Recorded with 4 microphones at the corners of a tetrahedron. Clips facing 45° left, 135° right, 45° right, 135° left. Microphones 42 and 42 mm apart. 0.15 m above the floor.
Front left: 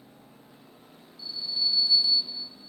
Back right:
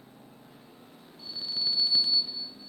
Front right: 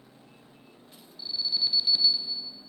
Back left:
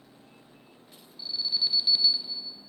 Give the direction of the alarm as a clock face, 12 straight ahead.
4 o'clock.